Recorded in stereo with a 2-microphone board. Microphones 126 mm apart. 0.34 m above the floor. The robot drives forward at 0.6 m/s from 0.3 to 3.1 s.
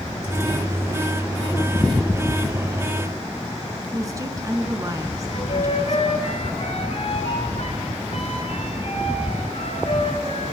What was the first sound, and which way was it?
A woman speaking, 25° right (ahead or behind).